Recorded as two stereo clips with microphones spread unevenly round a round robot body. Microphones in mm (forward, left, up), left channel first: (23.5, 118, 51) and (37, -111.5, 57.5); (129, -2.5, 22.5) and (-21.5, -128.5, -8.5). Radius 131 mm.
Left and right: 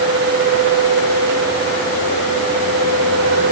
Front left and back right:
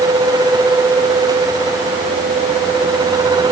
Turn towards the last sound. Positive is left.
No sound to turn to.